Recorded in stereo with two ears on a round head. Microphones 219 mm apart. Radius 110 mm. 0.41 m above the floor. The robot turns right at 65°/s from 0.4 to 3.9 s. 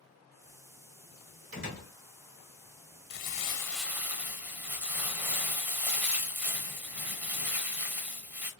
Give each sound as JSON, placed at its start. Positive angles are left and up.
{"t": 1.5, "sound": "a door slam", "side_deg": -50, "distance_m": 1.6}
{"t": 3.1, "sound": "crumpling", "azimuth_deg": 135, "distance_m": 0.7}